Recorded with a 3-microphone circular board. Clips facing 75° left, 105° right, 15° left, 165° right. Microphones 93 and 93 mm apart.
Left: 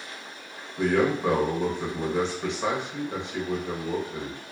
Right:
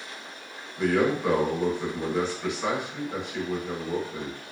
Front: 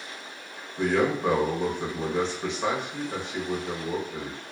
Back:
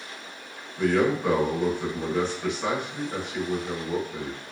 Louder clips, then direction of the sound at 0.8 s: Even, back 1 dB; 50° left.